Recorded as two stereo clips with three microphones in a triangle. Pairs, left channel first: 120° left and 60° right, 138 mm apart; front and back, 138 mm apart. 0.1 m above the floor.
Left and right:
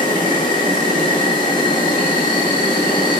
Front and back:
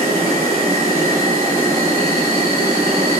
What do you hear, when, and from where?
0.0 s an insect: 135° left, 1.0 m